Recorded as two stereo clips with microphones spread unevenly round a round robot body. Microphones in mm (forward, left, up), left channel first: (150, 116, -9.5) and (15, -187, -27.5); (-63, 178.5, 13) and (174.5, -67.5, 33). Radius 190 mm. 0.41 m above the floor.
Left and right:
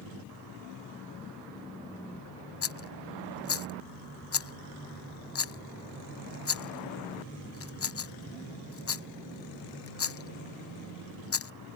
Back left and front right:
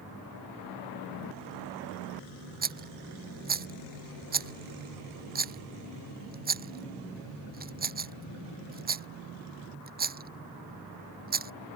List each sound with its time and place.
2.6 s a rattle: 20° left